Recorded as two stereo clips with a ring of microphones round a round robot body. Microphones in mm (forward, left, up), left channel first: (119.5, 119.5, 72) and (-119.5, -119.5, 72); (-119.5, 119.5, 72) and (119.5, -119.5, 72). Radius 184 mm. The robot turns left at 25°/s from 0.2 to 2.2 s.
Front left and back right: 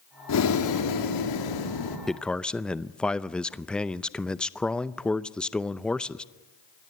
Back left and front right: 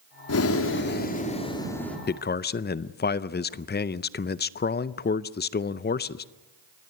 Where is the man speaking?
135° left, 0.6 m; by 6.2 s 130° left, 0.6 m.